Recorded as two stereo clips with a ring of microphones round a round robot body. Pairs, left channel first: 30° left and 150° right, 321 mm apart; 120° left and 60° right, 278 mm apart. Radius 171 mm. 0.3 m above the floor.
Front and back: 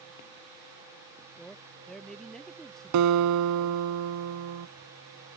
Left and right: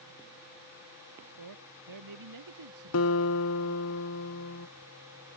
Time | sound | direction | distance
1.4 | a man speaking | 60° right | ?
2.9 | a guitar | 170° left | ?